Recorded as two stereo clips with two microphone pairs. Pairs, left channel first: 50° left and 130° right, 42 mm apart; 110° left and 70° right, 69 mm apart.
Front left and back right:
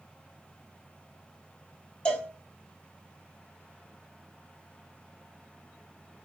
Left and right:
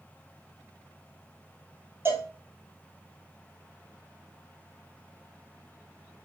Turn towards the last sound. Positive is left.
turn(degrees=-10)